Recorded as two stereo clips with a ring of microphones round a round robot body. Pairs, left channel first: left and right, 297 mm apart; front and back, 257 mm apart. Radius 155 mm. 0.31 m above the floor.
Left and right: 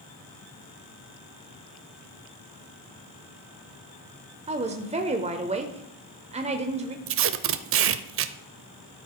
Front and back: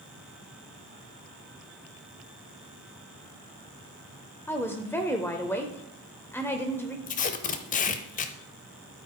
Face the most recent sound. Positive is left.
turn(degrees=-55)